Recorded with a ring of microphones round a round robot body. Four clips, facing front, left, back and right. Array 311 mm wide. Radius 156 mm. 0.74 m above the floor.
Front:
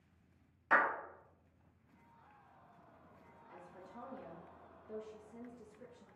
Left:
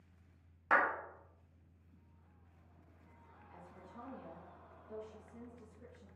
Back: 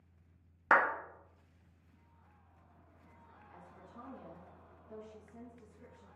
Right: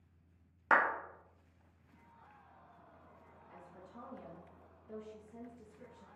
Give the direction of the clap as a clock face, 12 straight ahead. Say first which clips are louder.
Right 2 dB, back 4 dB; 5 o'clock.